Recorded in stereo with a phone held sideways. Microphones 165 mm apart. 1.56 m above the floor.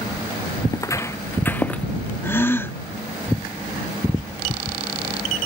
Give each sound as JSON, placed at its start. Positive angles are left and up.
{"t": 0.7, "sound": "footsteps", "side_deg": 20}
{"t": 2.2, "sound": "a gasp", "side_deg": 15}